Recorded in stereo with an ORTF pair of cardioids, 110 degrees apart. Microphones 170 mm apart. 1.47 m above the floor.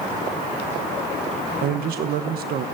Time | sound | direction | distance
1.6 | a man speaking | 65° right | 1.1 m